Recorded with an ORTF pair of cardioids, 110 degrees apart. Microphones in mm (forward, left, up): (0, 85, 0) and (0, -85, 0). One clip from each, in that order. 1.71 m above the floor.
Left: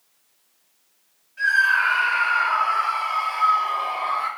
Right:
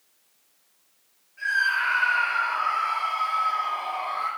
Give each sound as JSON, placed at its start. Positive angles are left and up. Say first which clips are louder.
{"t": 1.4, "sound": "a scream", "louder": "left 5 dB", "azimuth_deg": 50, "distance_m": 5.5}